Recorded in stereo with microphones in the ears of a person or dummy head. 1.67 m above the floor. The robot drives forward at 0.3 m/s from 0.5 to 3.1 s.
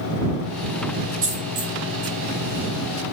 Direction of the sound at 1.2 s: 35° right (ahead or behind).